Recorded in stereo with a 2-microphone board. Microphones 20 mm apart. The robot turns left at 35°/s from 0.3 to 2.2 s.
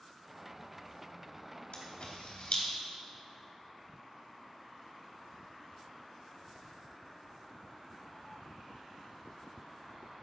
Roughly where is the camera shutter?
Left.